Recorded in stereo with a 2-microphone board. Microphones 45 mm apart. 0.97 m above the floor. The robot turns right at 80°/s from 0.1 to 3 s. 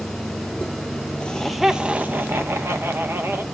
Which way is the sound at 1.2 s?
155° left.